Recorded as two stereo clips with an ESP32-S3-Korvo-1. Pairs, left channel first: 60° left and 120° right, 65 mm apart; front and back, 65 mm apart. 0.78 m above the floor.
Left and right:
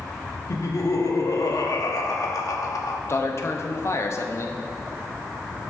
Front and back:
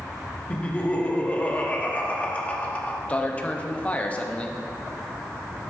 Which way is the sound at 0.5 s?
65° left.